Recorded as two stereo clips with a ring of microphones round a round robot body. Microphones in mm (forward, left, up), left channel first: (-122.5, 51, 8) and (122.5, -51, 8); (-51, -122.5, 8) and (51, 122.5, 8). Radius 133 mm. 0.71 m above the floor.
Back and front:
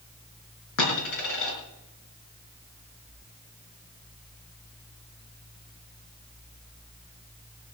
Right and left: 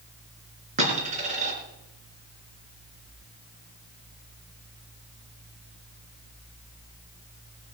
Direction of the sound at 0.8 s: 135° left.